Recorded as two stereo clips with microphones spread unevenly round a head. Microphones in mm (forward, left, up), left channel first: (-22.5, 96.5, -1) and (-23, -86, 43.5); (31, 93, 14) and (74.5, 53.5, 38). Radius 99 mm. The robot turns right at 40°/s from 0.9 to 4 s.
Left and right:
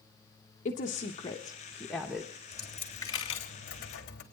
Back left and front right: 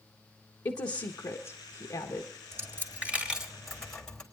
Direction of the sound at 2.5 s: 10° right.